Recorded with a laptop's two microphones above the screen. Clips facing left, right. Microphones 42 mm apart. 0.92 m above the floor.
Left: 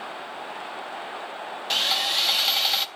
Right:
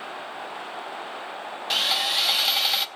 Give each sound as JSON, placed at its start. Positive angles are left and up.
{"t": 1.7, "sound": "sawing", "side_deg": -5, "distance_m": 0.7}